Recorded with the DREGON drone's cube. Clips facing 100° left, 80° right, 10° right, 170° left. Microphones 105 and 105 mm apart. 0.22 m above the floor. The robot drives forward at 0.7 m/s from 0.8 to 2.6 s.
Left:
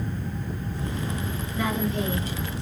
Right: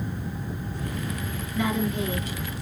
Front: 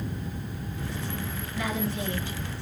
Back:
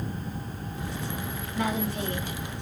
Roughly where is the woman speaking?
Behind left.